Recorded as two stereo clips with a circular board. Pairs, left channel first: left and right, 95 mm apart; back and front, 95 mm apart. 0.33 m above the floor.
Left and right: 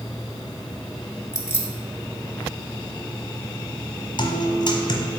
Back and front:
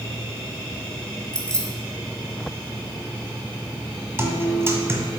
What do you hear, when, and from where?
1.3 s keys jangling: 110° left, 0.8 m
4.2 s a guitar: 60° left, 1.0 m